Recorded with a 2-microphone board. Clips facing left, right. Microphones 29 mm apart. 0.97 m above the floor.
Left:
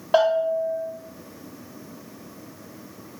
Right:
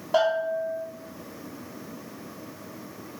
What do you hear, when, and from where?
0.1 s a bell: 55° left (ahead or behind), 1.0 m